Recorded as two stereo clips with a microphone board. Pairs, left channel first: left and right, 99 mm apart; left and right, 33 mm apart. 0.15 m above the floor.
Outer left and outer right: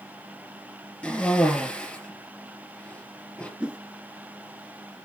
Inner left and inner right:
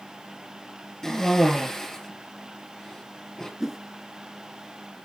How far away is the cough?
About 3 m.